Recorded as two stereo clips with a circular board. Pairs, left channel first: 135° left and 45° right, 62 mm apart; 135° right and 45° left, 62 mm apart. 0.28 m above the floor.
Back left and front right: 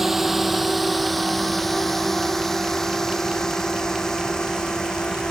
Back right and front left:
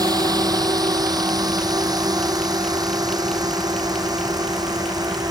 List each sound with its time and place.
0.0 s a drone: 40° left; by 5.3 s 55° left